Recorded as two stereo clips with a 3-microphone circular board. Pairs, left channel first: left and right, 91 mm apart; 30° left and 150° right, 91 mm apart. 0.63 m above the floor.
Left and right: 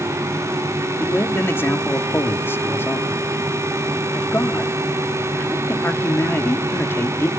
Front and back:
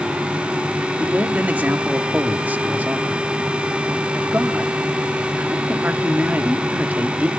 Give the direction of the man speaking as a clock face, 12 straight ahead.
7 o'clock.